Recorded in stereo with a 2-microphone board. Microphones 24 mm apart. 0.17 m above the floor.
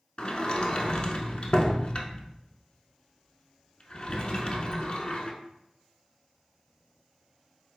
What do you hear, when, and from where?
0.2 s a sliding door: 45° left (ahead or behind), 0.6 m